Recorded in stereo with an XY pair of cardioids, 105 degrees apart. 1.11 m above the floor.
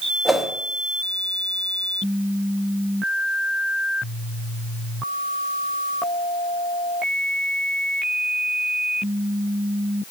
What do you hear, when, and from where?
0.2 s a whoosh: 5° right, 1.1 m